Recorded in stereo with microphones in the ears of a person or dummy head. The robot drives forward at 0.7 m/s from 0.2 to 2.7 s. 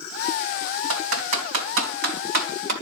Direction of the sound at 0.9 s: 70° right (ahead or behind).